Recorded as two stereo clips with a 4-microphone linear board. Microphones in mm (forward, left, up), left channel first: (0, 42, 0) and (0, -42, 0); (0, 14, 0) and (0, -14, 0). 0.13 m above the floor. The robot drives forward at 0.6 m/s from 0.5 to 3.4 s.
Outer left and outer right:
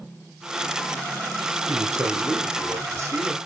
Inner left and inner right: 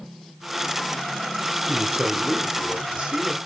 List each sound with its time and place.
1.7 s a man speaking: 40° right (ahead or behind), 3 m; by 3.4 s 30° right (ahead or behind), 4 m